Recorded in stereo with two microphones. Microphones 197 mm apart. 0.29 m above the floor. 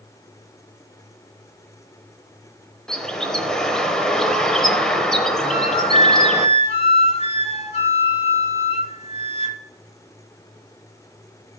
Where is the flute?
35° left (ahead or behind), 1.2 m.